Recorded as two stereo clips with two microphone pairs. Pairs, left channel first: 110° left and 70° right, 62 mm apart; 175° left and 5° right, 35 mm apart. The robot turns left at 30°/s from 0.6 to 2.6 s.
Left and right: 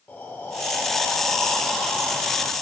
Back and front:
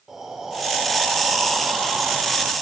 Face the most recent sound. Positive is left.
turn(degrees=10)